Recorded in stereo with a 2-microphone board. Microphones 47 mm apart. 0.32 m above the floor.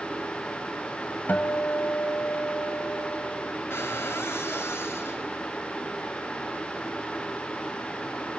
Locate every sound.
1.3 s a guitar: 40° left (ahead or behind), 1.7 m
3.7 s a cupboard door: 65° left (ahead or behind), 5 m